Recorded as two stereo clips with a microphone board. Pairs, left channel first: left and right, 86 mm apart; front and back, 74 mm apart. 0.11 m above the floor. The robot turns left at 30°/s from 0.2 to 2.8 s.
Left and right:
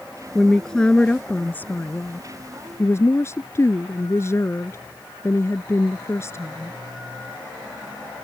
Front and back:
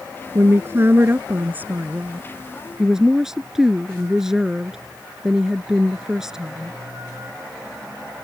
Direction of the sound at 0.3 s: 175° left.